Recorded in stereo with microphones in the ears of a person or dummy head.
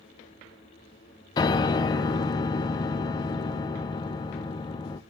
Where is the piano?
25° left (ahead or behind), 0.5 m.